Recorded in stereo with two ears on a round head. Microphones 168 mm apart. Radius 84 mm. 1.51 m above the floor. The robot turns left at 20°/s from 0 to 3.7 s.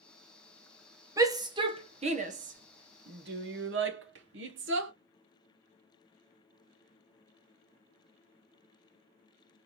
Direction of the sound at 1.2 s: 15° right (ahead or behind).